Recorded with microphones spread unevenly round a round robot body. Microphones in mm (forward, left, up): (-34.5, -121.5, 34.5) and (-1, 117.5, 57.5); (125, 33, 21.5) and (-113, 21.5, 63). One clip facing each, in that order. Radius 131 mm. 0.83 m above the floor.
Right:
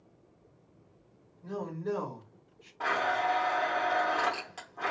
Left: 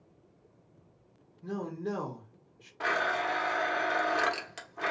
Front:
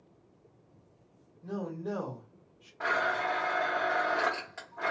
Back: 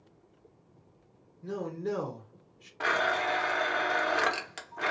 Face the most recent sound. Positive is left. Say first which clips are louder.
# right 1 dB, back 2 dB
turn(degrees=140)